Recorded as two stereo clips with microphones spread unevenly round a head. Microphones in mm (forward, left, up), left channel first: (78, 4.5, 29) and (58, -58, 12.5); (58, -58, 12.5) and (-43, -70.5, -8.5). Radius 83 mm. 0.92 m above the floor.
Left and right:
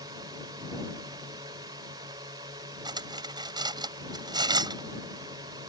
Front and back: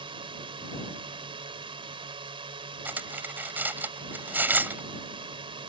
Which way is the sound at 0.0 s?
140° right.